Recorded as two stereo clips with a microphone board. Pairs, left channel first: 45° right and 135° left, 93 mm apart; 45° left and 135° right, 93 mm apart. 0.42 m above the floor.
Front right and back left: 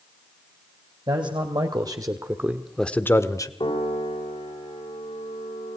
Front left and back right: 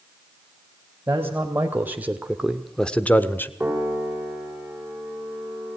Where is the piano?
60° right, 5.5 m.